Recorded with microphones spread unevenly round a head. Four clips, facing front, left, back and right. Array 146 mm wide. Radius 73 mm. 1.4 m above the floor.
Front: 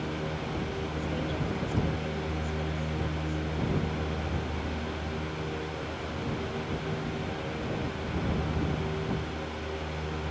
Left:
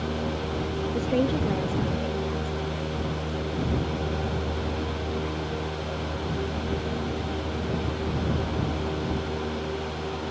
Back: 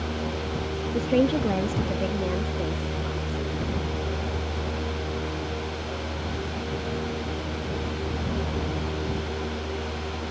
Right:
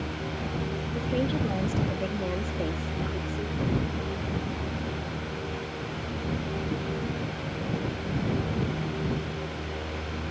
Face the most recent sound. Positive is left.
turn(degrees=-120)